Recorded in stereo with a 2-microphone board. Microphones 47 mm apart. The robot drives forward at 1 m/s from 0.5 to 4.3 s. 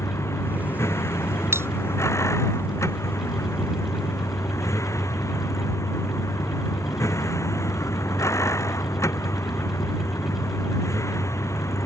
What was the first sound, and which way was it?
A vehicle, 70° left (ahead or behind).